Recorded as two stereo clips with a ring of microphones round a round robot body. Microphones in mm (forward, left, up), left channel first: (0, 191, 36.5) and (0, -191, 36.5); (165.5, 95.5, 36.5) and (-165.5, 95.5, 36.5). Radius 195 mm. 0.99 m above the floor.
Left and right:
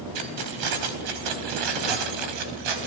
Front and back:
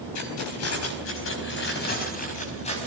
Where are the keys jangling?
50° right, 4.5 m; by 2.9 s 75° right, 5 m.